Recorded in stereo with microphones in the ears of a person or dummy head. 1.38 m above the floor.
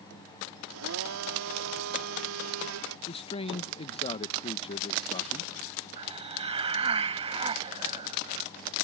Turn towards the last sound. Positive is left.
turn(degrees=-25)  # may be behind; listen again after turning